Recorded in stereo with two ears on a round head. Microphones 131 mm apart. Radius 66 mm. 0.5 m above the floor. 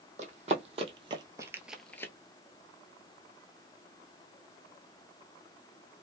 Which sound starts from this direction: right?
Running footsteps, at 0.2 s.